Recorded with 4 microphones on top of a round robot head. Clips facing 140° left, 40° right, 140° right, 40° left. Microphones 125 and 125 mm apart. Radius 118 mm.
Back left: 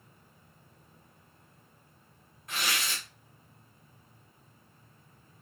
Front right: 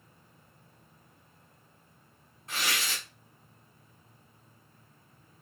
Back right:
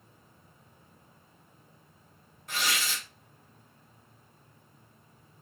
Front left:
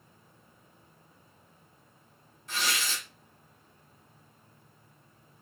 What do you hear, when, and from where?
2.5 s tearing paper: 100° right, 2.5 m